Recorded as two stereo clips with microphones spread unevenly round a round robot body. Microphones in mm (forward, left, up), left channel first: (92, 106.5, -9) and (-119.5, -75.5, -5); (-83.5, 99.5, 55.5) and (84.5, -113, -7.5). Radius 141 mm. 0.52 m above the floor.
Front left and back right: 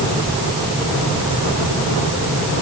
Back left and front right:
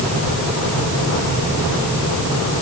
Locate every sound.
Only background noise.